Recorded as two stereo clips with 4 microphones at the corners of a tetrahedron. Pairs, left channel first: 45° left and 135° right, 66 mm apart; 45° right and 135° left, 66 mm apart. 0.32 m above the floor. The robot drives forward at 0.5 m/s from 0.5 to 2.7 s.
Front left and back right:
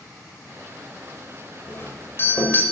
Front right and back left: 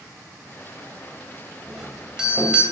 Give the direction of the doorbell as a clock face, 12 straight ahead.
10 o'clock.